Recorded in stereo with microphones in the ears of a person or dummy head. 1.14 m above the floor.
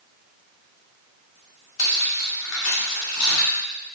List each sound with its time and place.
1.8 s cutlery clinking: 75° left (ahead or behind), 1.7 m